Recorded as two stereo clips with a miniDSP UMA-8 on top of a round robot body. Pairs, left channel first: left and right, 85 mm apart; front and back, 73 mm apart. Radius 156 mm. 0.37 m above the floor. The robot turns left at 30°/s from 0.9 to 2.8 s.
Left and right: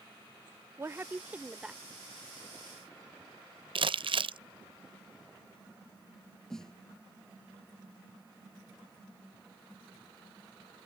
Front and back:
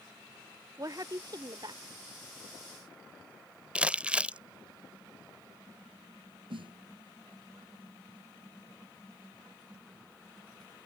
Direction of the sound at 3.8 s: 105° right.